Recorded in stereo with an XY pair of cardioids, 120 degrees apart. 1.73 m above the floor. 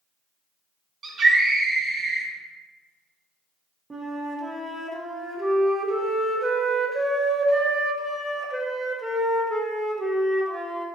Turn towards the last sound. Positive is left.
turn(degrees=-25)